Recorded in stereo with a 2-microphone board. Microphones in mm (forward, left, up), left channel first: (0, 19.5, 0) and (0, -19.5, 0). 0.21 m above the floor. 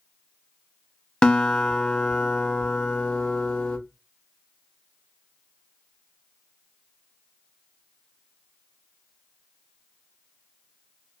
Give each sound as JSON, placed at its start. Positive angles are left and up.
{"t": 1.2, "sound": "a guitar", "side_deg": 20, "distance_m": 0.5}